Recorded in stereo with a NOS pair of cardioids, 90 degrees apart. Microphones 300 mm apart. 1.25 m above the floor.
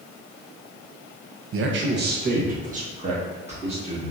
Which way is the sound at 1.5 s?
50° right.